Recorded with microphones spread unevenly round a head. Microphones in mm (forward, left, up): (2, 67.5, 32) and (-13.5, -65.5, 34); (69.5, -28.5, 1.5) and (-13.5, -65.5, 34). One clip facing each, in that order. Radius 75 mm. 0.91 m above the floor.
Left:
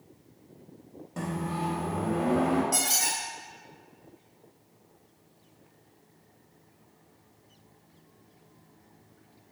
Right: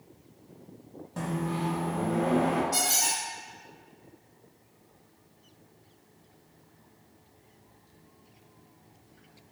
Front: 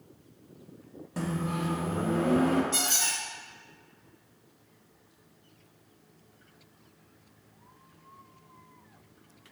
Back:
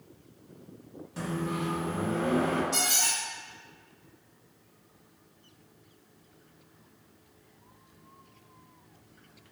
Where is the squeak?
110° left, 1.4 m.